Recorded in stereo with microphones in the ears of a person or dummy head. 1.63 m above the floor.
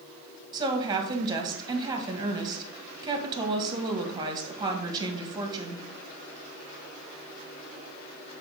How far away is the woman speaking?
About 1.6 m.